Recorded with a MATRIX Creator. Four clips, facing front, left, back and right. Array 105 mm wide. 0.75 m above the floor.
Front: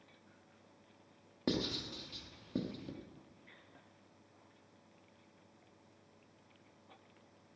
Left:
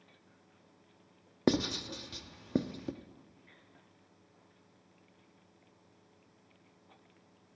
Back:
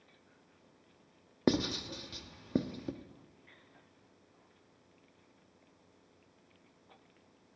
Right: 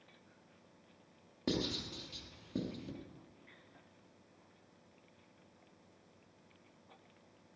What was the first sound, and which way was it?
Writing, 125° left.